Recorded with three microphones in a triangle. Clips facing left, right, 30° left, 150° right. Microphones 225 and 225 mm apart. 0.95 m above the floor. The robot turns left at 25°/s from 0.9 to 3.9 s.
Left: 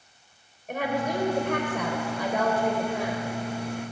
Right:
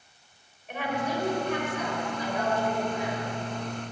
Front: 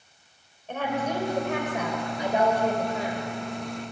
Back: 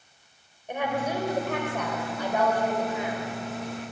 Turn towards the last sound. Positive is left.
turn(degrees=60)